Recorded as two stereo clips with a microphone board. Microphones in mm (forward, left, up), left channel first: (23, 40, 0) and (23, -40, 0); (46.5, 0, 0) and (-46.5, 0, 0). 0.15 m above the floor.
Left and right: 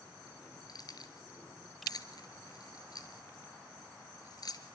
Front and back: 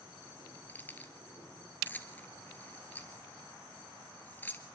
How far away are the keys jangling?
About 1.9 m.